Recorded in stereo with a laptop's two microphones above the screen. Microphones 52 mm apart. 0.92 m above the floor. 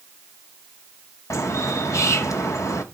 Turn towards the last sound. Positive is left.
turn(degrees=75)  # may be behind; listen again after turning